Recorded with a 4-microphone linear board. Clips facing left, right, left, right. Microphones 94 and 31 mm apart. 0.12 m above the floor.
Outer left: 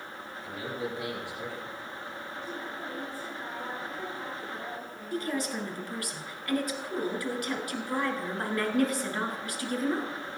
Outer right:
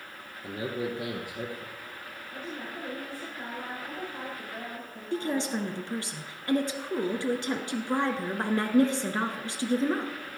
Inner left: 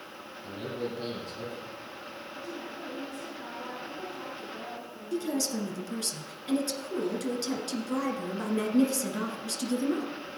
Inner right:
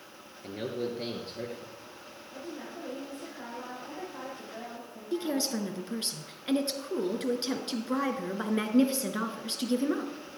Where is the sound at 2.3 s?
65° right (ahead or behind), 7 m.